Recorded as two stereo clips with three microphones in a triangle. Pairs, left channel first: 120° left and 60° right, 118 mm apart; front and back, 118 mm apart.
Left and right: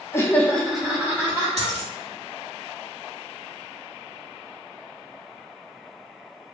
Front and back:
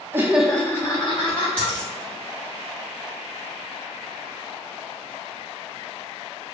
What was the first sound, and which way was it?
Laughter, 145° left.